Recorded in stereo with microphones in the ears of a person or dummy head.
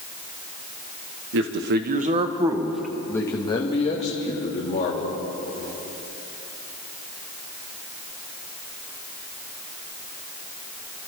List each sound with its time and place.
1.3 s a man speaking: 60° right (ahead or behind), 1.3 m; by 5.2 s 45° left (ahead or behind), 2.5 m